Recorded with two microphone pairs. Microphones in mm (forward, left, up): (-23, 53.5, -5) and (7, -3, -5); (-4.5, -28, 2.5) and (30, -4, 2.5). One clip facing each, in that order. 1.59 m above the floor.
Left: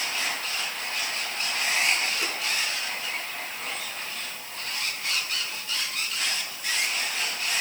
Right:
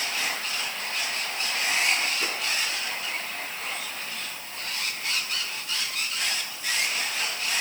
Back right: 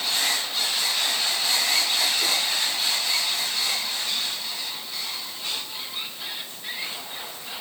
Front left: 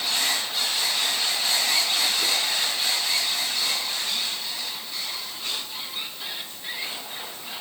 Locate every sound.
Only background noise.